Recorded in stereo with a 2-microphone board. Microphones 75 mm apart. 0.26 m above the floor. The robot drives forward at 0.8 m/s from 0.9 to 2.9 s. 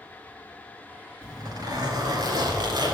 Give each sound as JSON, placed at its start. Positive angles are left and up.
{"t": 1.2, "sound": "a zipper", "side_deg": -60, "distance_m": 4.0}